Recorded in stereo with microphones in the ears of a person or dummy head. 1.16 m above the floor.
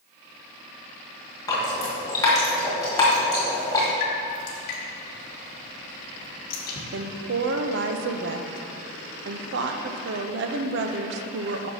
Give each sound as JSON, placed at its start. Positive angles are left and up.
{"t": 1.5, "sound": "dripping", "side_deg": 20, "distance_m": 1.5}
{"t": 4.0, "sound": "dripping", "side_deg": 45, "distance_m": 1.7}
{"t": 6.9, "sound": "a woman speaking", "side_deg": -65, "distance_m": 0.6}